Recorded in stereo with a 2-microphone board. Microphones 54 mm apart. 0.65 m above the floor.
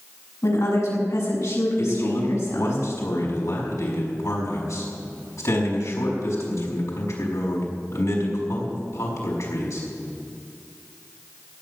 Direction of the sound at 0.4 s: 80° left.